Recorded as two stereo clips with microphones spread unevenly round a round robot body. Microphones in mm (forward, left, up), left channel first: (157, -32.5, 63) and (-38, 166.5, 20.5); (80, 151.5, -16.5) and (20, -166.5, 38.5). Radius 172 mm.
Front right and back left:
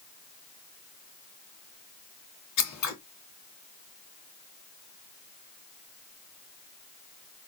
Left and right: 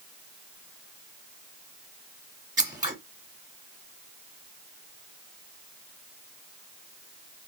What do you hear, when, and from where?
2.6 s scissors: 20° right, 2 m